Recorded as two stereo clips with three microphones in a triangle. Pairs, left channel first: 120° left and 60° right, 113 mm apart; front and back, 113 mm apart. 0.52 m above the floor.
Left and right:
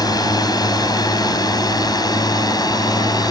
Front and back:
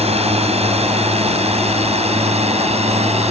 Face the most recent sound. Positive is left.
turn(degrees=170)